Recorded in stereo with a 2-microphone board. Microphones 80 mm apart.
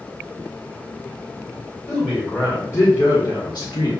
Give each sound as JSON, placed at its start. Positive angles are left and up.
{"t": 1.9, "sound": "a man speaking", "side_deg": 30, "distance_m": 1.9}